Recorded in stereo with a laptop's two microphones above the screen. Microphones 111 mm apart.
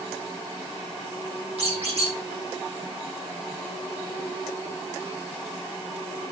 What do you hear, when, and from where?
1.6 s a squeak: 60° right (ahead or behind), 6 m